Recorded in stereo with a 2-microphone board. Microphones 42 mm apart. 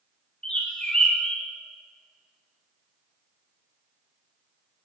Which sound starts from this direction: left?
A bird, at 0.4 s.